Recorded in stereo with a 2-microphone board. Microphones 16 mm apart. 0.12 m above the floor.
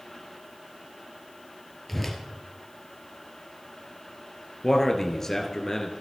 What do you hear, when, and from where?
1.9 s a whoosh: 15° left (ahead or behind), 2.5 m
4.6 s a man speaking: 30° left (ahead or behind), 2.5 m